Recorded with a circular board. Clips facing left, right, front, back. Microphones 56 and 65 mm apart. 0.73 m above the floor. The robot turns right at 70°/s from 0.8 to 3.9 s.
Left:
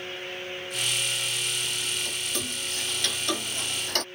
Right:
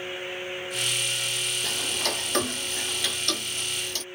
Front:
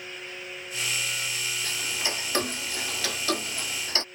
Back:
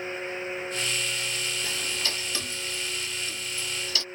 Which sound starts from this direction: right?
Ticking, at 1.6 s.